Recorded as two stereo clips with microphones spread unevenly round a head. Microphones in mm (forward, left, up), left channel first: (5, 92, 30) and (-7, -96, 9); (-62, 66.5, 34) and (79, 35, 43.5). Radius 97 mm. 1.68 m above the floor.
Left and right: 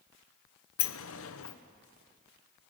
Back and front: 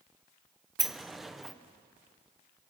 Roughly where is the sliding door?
Left.